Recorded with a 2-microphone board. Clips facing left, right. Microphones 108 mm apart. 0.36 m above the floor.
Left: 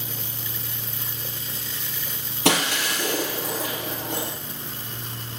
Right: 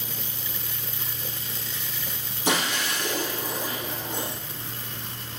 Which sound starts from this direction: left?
Breaking glass, at 2.5 s.